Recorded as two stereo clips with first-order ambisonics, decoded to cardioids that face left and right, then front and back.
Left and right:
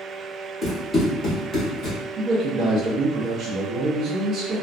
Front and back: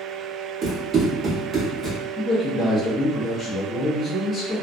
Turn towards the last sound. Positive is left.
turn(degrees=-70)